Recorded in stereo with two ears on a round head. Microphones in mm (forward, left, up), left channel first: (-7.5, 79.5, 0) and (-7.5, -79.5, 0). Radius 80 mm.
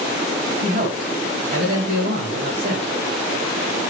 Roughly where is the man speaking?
Right.